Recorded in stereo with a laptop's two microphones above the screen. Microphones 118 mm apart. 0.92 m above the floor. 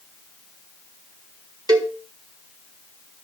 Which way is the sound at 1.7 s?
35° right (ahead or behind).